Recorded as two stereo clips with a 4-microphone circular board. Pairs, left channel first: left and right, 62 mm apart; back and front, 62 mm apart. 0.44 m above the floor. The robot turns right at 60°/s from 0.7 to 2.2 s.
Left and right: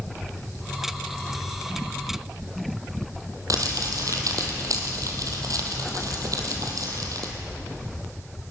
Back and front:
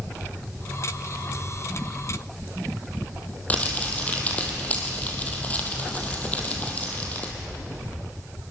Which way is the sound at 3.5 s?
115° right.